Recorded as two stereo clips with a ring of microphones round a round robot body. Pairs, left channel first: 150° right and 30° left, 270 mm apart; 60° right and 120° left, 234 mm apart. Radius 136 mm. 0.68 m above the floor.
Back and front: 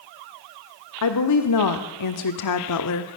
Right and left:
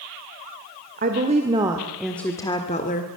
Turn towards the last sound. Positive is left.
turn(degrees=-115)